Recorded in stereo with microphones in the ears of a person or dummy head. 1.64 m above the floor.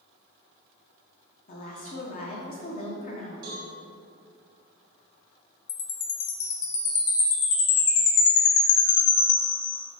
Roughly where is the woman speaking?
Left.